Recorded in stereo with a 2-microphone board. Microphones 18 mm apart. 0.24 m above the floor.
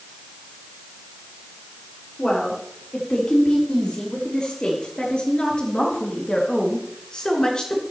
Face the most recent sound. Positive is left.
turn(degrees=45)  # may be behind; listen again after turning